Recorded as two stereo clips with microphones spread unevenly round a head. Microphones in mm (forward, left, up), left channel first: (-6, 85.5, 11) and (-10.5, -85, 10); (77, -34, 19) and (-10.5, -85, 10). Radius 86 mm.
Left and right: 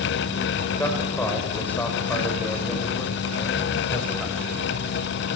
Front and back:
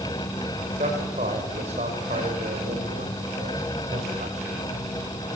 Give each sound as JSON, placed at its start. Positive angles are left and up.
{"t": 0.8, "sound": "a man speaking", "azimuth_deg": 170, "distance_m": 6.0}